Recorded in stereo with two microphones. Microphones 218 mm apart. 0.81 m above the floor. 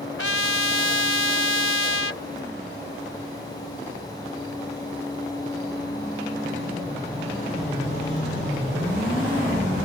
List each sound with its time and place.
0.2 s a trumpet: 85° left